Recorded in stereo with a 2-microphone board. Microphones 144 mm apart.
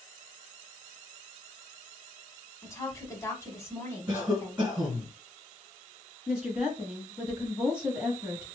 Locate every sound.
2.6 s a woman speaking: 20° left (ahead or behind), 1.0 m
4.1 s a cough: 20° right (ahead or behind), 1.8 m
6.3 s a woman speaking: 10° right (ahead or behind), 1.3 m